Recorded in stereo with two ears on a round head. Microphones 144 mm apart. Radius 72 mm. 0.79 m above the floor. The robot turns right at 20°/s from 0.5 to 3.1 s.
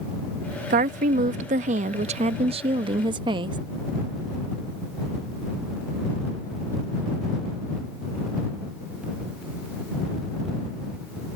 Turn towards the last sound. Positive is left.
turn(degrees=-40)